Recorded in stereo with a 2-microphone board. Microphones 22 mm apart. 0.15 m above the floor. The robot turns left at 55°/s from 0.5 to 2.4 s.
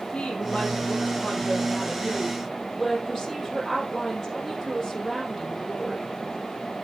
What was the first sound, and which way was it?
A woman speaking, 100° left.